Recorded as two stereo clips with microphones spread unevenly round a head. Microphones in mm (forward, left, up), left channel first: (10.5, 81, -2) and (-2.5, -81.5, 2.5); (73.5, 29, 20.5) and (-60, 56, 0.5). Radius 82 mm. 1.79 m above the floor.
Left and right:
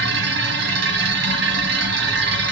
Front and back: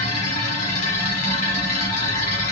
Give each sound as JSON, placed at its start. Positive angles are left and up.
{"t": 0.0, "sound": "a machine running", "azimuth_deg": -70, "distance_m": 1.4}